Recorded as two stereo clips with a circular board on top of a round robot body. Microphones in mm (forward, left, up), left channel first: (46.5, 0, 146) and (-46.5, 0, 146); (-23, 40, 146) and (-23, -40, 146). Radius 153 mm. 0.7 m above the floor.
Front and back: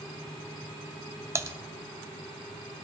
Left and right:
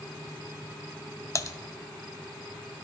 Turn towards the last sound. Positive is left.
turn(degrees=130)